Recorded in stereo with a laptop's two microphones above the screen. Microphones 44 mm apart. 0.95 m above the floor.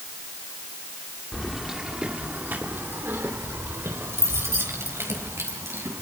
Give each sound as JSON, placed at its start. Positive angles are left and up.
{"t": 1.3, "sound": "keys jangling", "side_deg": 5, "distance_m": 2.0}